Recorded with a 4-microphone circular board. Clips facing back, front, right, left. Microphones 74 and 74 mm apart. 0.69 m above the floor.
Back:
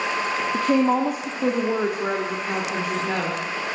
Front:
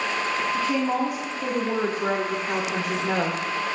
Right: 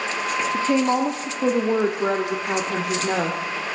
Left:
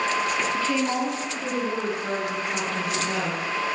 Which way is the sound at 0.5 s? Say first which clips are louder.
Back 7 dB, right 4 dB; 150° right.